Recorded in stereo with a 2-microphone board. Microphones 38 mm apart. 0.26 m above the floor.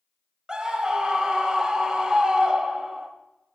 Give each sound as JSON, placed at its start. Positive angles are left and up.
{"t": 0.5, "sound": "a scream", "side_deg": -20, "distance_m": 1.0}